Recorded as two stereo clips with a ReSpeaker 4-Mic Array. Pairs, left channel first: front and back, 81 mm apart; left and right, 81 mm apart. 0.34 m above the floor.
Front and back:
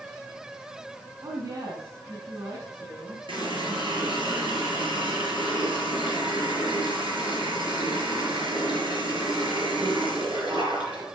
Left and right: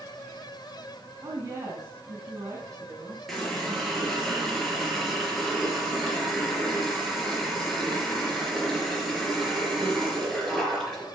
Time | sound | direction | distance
1.2 | a woman speaking | 140° right | 3.5 m
3.3 | a running tap | 175° left | 4.5 m